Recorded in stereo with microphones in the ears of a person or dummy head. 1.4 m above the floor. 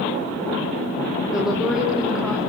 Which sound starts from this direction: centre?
A woman speaking, at 1.3 s.